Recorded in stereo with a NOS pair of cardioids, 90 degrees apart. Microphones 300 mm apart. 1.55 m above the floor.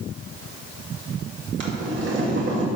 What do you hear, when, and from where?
1.6 s boiling: 40° right, 2.5 m